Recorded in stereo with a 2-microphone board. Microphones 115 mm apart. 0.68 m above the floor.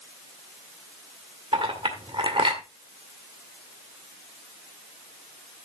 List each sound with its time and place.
1.5 s a clink: 50° right (ahead or behind), 1.7 m